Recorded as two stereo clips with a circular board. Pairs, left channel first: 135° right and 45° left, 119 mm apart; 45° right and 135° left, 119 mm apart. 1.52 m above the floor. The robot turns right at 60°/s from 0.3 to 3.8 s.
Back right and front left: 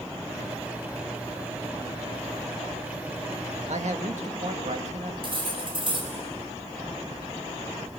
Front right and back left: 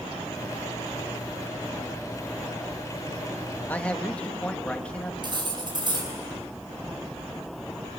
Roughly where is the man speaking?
Ahead left.